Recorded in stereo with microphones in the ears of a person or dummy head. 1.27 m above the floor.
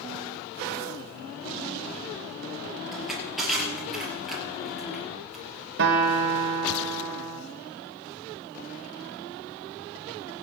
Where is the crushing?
Centre (ahead or behind), 4 m.